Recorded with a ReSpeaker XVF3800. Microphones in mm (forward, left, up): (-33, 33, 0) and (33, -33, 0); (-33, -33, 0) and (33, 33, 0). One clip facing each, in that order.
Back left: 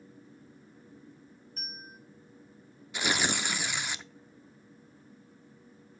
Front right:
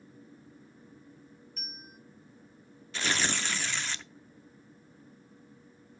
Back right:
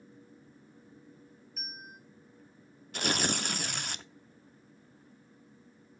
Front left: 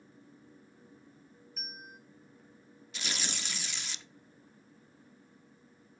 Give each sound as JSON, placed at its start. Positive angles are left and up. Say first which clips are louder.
{"t": 1.6, "sound": "a bell", "louder": "back left 5 dB, back right 1 dB", "azimuth_deg": 135, "distance_m": 1.4}
{"t": 2.9, "sound": "tearing paper", "louder": "back left 1 dB, back right 9 dB", "azimuth_deg": -150, "distance_m": 0.5}